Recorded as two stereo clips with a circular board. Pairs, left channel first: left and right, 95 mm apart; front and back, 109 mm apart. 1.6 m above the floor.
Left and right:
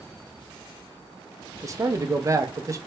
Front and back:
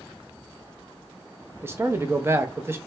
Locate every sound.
1.6 s a man speaking: 120° right, 0.6 m